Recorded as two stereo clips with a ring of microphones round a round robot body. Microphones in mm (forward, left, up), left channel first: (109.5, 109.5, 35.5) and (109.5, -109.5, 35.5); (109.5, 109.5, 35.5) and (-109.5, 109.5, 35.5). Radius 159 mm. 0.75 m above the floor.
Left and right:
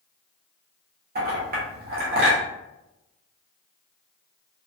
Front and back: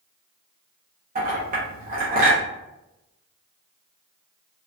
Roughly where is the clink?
Behind right.